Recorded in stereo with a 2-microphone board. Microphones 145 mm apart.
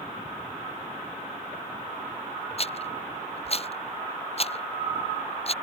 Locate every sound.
2.6 s a rattle: 45° left (ahead or behind)